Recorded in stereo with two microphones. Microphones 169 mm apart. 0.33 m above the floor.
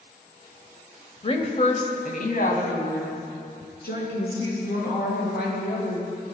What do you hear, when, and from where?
1.2 s a woman speaking: 35° left (ahead or behind), 1.3 m; by 6.0 s 70° left (ahead or behind), 6 m